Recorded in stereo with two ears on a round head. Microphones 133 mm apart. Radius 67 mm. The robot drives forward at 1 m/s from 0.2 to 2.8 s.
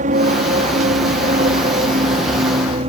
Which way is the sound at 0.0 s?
50° right (ahead or behind).